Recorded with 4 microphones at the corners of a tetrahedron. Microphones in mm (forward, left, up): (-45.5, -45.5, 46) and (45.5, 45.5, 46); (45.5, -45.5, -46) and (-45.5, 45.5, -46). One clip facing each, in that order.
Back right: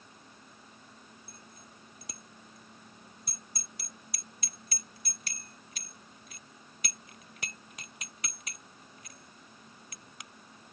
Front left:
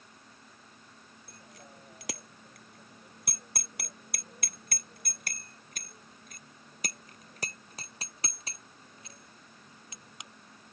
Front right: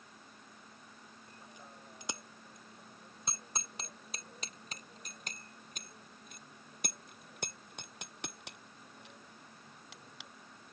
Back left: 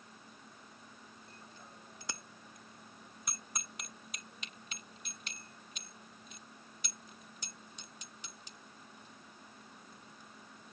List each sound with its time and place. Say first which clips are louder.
1.3 s a bicycle bell: front left 2 dB, front right 3 dB; 30° left; by 10.3 s 25° right